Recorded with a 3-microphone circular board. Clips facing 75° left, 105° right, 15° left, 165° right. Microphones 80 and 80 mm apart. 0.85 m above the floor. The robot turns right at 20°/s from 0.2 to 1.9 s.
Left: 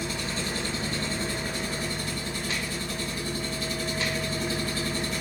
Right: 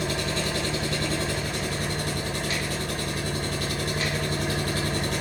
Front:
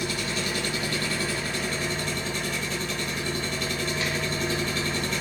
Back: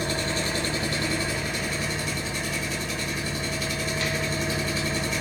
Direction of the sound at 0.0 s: 120° right.